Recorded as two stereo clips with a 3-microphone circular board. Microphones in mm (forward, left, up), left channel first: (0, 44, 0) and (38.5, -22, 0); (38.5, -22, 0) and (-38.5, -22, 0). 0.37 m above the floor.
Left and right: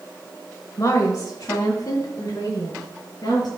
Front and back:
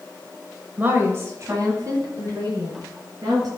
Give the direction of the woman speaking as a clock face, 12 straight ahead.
8 o'clock.